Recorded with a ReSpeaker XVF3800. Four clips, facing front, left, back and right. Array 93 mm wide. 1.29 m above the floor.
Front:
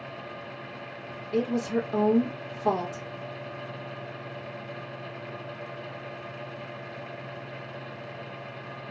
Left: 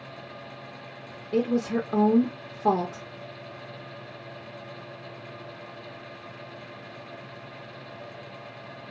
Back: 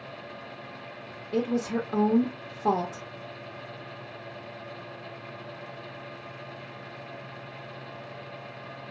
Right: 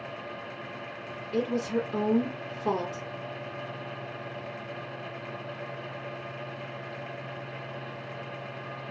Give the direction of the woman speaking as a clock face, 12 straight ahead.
8 o'clock.